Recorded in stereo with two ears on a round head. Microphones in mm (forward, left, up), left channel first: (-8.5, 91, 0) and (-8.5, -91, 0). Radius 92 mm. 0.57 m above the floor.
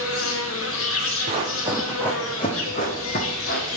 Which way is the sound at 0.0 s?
75° left (ahead or behind).